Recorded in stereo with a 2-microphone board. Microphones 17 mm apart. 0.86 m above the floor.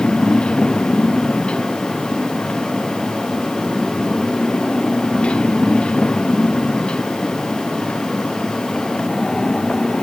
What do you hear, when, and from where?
0.0 s a motorcycle: 75° left (ahead or behind); by 10.0 s 85° left